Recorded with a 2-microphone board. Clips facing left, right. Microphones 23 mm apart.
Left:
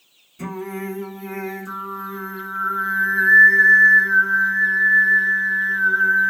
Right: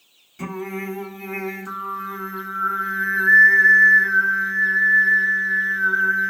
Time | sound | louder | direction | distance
0.4 | singing | even | 35° right (ahead or behind) | 1.4 m